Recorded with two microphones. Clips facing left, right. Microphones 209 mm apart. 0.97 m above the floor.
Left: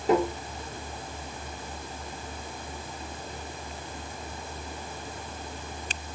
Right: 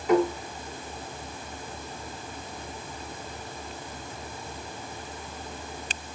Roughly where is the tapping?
Left.